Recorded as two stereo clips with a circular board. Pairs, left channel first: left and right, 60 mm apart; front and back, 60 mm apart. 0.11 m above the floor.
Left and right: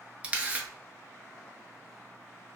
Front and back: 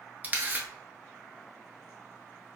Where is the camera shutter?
140° right, 0.7 m.